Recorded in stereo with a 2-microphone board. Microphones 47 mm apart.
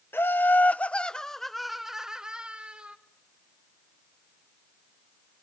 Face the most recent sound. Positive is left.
turn(degrees=-25)  # may be behind; listen again after turning